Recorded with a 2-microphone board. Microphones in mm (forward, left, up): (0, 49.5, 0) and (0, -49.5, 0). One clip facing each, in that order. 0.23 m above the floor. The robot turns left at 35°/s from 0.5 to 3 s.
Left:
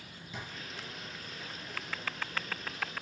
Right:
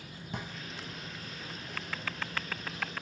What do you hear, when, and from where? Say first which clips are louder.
0.3 s a drawer: right 4 dB; 55° right (ahead or behind), 0.6 m